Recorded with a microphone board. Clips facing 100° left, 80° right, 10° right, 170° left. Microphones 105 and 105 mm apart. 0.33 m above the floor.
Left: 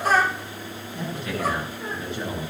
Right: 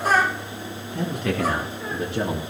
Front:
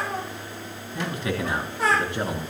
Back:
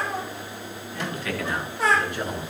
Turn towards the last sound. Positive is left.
turn(degrees=-70)